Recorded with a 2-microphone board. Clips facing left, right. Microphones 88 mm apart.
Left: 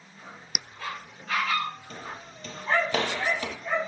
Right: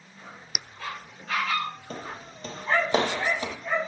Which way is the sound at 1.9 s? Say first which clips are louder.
Right 2 dB; 45° right (ahead or behind).